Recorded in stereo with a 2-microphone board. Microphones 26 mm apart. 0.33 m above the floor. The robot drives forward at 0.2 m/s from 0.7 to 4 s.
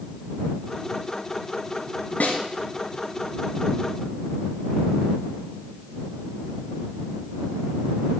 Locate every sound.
2.2 s a snare drum: 80° left, 1.4 m